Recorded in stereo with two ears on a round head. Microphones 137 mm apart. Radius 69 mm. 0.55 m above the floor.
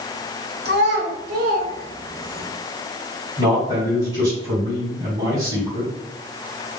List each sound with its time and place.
0.7 s a child speaking: 70° right (ahead or behind), 1.5 m; by 2.5 s 35° right (ahead or behind), 1.2 m
3.4 s a man speaking: 20° right (ahead or behind), 1.8 m